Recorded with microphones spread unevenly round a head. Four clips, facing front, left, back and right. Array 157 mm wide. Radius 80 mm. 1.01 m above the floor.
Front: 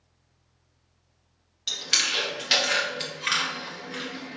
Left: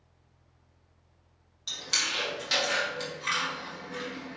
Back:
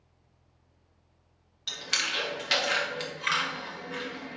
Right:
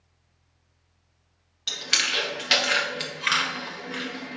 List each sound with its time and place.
1.7 s chewing: 80° right, 0.8 m